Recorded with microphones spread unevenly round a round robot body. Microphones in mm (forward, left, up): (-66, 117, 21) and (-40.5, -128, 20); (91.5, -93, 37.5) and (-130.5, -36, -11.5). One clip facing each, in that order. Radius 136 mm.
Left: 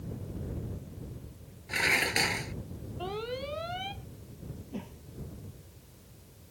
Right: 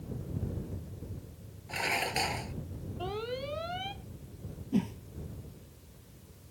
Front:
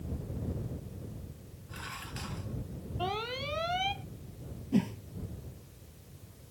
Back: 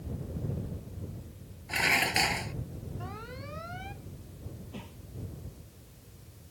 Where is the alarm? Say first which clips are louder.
Even, front 7 dB; 5° left.